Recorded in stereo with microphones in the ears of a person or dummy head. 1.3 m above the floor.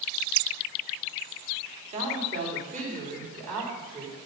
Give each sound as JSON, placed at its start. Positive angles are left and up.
{"t": 1.9, "sound": "a woman speaking", "side_deg": -35, "distance_m": 3.0}